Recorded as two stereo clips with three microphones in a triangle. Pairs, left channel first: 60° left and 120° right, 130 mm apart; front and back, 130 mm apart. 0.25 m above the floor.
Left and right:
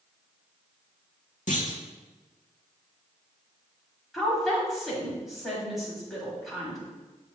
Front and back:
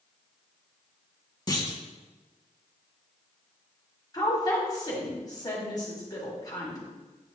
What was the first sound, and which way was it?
A clunk, 60° left.